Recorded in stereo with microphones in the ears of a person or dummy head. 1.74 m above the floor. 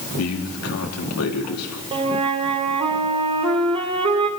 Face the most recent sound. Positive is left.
turn(degrees=-25)  # may be behind; listen again after turning